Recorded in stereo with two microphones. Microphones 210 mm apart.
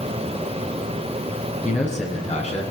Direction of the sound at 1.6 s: 35° left (ahead or behind).